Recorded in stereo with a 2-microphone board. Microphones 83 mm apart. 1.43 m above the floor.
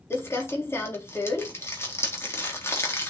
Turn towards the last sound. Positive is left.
turn(degrees=30)  # may be behind; listen again after turning